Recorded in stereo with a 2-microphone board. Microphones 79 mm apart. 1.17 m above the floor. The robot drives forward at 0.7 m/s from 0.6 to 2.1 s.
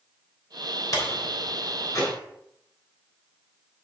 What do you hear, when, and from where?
0.9 s a door slam: 45° left (ahead or behind), 3 m; by 2.1 s 35° left (ahead or behind), 3.5 m